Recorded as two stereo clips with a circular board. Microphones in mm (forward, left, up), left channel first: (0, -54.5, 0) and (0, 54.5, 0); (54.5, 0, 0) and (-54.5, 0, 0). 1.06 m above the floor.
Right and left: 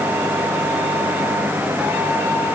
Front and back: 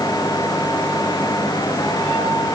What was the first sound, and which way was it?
Only background noise.